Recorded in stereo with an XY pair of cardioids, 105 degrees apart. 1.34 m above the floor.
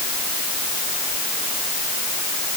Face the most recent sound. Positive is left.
No sound to turn to.